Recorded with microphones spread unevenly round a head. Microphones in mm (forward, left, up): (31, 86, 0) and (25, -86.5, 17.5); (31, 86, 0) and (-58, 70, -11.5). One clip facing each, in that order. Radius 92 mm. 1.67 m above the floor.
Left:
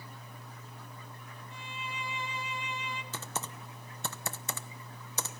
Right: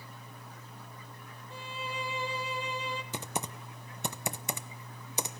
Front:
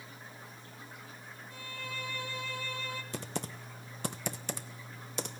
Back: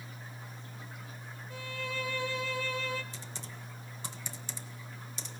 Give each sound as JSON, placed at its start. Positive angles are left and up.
{"t": 1.5, "sound": "a violin", "azimuth_deg": -155, "distance_m": 1.5}
{"t": 3.1, "sound": "typing on a keyboard", "azimuth_deg": -20, "distance_m": 1.0}